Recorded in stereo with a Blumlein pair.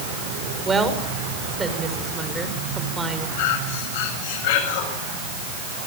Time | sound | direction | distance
0.7 | a woman speaking | 15° right | 6 m
3.4 | breathing | 50° left | 7.5 m